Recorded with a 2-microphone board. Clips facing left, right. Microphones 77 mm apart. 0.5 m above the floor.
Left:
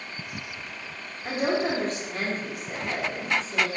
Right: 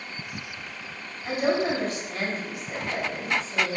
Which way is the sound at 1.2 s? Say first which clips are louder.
Right 1 dB; 40° left (ahead or behind).